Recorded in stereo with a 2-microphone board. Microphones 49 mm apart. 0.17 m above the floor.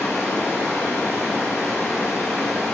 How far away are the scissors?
I don't hear scissors.